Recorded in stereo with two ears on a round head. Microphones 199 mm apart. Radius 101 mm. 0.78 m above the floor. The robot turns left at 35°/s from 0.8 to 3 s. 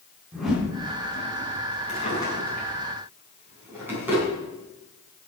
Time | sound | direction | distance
0.3 | a whoosh | centre (ahead or behind) | 4 m
1.9 | a drawer | 30° left (ahead or behind) | 4.5 m